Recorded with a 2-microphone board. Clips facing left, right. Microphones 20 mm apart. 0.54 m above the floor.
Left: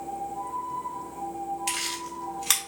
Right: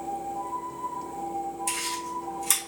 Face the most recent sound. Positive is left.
turn(degrees=40)  # may be behind; listen again after turning